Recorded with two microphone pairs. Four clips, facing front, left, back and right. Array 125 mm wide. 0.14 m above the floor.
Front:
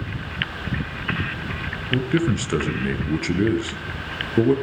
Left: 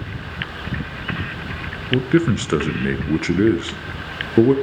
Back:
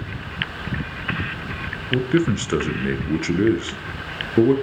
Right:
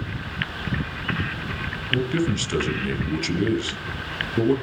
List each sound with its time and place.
1.9 s a man speaking: 110° left, 2 m